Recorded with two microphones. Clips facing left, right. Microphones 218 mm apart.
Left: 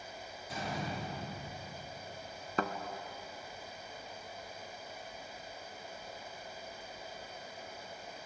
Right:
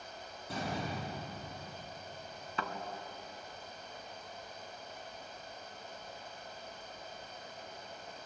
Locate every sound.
0.5 s a door slam: 65° right (ahead or behind), 9.5 m
2.6 s a thud: 50° left (ahead or behind), 1.3 m